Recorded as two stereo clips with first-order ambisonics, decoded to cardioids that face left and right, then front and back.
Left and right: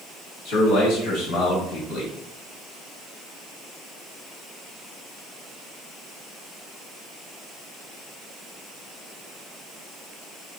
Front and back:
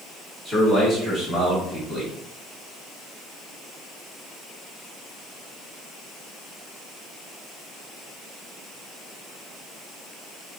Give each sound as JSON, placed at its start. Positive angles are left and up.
{"t": 0.5, "sound": "a man speaking", "azimuth_deg": 100, "distance_m": 2.0}